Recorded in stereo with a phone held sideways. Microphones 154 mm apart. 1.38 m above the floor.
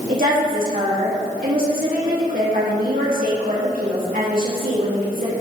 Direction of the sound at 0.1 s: 65° right (ahead or behind).